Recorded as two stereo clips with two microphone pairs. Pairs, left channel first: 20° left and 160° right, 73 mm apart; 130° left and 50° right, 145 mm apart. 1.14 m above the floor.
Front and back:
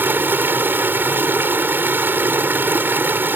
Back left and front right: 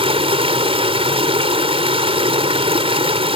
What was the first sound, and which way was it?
Running water, 100° right.